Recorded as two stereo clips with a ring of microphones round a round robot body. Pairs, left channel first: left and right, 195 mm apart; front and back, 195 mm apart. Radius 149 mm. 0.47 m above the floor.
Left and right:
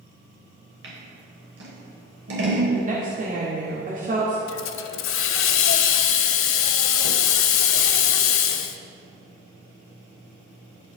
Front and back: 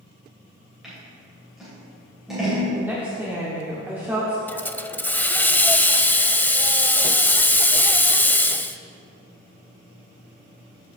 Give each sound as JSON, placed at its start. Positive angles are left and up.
{"t": 0.8, "sound": "scissors", "azimuth_deg": -90, "distance_m": 3.0}
{"t": 2.7, "sound": "a woman speaking", "azimuth_deg": -105, "distance_m": 1.4}
{"t": 4.5, "sound": "a hiss", "azimuth_deg": 80, "distance_m": 0.6}